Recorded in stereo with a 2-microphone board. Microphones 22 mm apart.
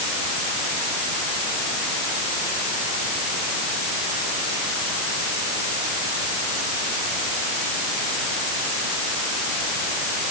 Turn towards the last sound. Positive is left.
No sound to turn to.